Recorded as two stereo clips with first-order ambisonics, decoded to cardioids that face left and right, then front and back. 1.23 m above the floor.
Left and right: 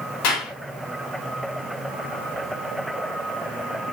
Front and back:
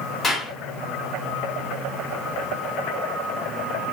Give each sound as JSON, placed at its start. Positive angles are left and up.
{"t": 0.2, "sound": "a clap", "azimuth_deg": 80, "distance_m": 4.0}